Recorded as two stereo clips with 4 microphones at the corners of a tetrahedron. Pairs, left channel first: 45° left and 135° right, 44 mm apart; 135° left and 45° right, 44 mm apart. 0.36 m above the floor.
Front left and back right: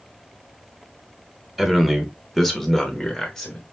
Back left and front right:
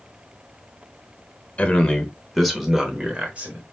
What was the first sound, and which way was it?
A man speaking, 140° left.